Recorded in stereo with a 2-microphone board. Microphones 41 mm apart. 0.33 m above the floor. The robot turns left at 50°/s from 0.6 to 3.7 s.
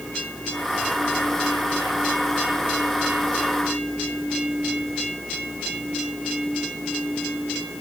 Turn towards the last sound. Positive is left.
No sound to turn to.